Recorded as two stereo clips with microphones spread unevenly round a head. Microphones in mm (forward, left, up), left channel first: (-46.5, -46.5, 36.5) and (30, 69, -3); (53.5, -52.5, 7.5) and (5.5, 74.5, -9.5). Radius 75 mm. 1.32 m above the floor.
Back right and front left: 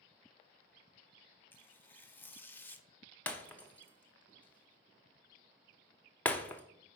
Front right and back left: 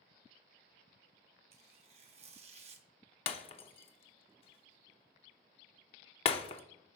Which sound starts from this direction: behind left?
Tearing paper, at 1.5 s.